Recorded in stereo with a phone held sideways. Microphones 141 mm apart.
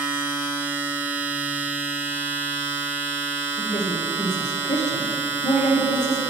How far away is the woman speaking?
About 1.2 m.